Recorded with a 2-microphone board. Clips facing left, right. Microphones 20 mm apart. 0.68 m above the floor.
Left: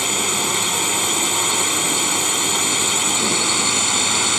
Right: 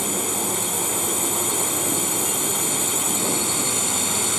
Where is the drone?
35° left (ahead or behind); by 4.4 s 25° left (ahead or behind).